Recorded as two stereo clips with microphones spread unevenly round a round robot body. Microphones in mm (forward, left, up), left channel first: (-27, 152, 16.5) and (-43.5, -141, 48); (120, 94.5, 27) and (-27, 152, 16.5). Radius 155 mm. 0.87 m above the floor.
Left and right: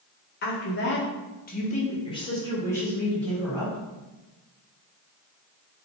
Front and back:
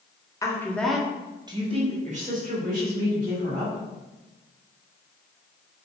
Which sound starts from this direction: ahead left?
A woman speaking, at 0.4 s.